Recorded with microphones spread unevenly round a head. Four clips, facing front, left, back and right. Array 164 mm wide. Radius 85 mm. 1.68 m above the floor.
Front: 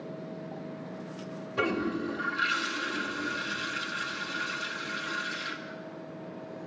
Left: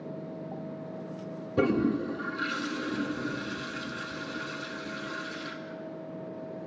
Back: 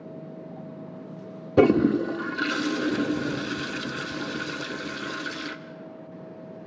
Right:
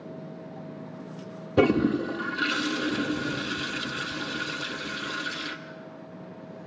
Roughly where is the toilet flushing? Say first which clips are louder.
Right 4 dB, back 12 dB; behind right.